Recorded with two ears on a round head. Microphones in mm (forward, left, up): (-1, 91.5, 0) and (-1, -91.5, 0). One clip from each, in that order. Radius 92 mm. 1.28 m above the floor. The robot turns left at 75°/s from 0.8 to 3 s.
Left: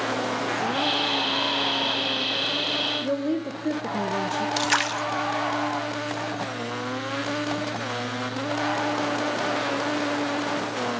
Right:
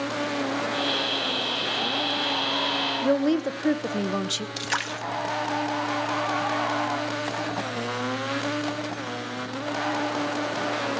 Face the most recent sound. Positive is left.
turn(degrees=15)  # may be behind; listen again after turning